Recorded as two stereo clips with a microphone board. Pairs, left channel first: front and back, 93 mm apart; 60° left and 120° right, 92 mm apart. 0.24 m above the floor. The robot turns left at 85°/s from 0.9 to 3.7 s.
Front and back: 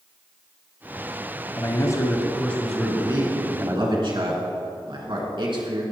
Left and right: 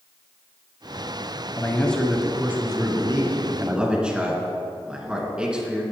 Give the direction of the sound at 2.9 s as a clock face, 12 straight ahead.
4 o'clock.